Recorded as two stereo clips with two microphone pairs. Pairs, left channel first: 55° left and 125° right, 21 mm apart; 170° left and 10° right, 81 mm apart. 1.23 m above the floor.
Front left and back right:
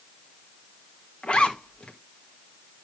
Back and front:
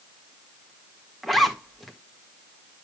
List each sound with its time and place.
1.2 s a zipper: 80° left, 1.5 m